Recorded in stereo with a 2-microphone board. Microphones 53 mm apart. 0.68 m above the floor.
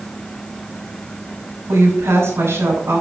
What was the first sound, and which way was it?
A woman speaking, 55° right (ahead or behind).